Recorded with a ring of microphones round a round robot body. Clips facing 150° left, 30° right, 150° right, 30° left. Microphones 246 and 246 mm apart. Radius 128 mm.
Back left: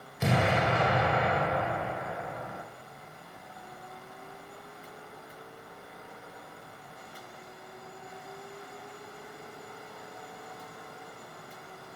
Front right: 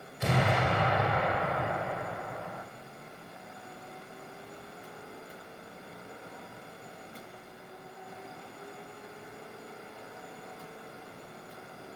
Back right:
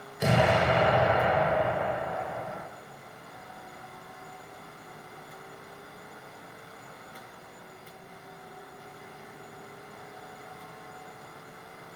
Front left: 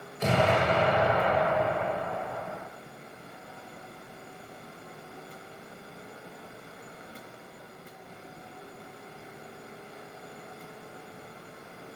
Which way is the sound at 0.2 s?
130° left.